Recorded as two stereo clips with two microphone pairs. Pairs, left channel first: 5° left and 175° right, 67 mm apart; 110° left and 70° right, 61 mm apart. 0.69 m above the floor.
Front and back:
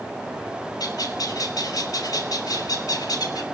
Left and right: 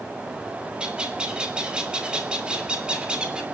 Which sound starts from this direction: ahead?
A bird, at 0.8 s.